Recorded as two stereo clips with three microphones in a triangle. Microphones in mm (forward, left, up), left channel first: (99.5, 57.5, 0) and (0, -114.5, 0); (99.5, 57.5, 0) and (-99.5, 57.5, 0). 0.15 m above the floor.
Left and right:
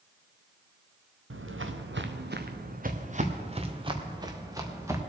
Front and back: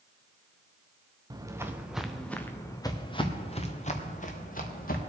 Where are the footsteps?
110° right, 1.2 m; by 5.0 s 40° right, 2 m.